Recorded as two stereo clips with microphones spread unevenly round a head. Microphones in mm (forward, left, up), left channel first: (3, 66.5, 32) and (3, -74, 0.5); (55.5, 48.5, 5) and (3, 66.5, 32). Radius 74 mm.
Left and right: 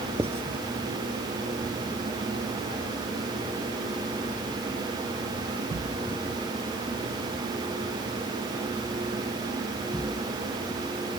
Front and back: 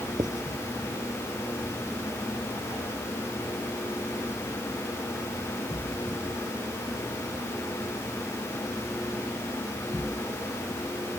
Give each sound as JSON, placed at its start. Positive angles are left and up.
{"t": 0.2, "sound": "writing", "azimuth_deg": -165}